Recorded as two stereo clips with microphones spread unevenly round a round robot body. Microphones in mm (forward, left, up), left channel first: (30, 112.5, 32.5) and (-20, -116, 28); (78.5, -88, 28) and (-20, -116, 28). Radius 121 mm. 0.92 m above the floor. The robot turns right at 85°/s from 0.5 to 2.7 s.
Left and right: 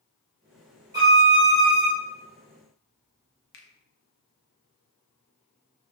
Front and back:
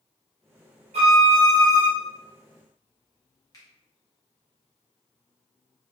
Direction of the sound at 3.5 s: 75° left.